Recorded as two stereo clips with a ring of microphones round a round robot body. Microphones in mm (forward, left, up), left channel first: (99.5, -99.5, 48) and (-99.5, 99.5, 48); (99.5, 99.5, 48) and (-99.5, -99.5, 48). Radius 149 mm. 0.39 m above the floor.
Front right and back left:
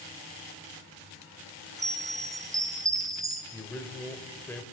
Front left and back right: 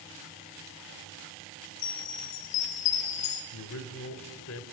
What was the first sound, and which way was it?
A chime, 55° left.